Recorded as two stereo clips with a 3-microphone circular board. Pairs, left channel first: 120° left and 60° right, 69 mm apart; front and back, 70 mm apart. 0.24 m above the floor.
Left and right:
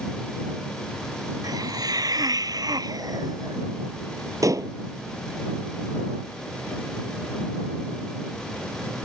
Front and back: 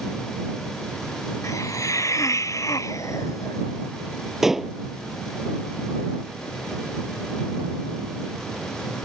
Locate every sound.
1.4 s a hiss: 40° right
4.4 s dishes clattering: 95° right